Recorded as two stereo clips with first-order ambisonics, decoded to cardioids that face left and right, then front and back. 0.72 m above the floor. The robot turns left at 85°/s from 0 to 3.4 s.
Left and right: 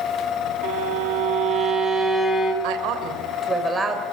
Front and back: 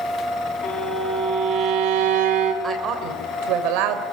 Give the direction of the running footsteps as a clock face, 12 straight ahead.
No running footsteps in this recording.